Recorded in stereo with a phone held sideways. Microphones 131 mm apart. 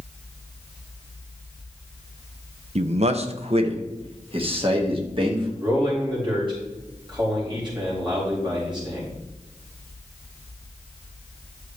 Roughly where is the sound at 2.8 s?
Right.